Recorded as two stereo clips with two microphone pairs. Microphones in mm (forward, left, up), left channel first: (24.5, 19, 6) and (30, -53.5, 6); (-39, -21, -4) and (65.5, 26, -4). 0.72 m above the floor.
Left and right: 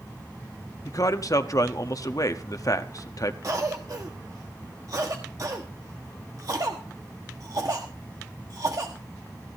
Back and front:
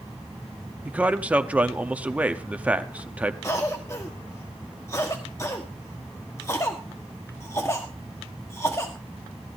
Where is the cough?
100° right, 1.3 m.